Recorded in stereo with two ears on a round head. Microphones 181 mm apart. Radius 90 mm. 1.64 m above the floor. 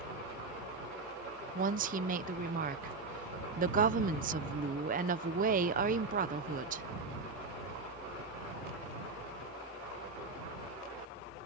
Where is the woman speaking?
40° right (ahead or behind).